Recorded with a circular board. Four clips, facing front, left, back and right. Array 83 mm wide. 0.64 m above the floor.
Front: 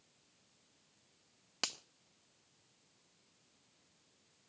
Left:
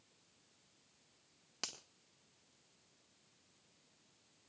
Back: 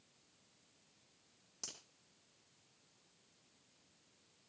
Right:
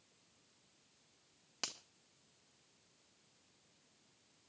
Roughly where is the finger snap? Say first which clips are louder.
Right 2 dB, front 12 dB; ahead.